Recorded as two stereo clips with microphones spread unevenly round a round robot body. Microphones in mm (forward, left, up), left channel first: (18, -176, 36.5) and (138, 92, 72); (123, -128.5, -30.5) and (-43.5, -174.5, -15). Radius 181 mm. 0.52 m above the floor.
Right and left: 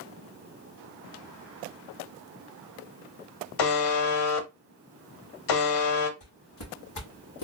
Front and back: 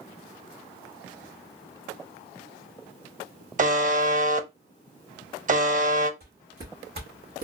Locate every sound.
3.6 s a buzzer: 120° right, 0.7 m
6.2 s footsteps: 155° right, 2 m; by 7.4 s 150° right, 1.3 m